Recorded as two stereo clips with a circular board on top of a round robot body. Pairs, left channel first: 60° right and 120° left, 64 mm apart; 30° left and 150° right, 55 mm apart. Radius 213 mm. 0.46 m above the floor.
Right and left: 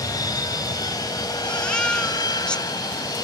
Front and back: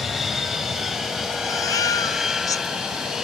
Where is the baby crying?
15° left.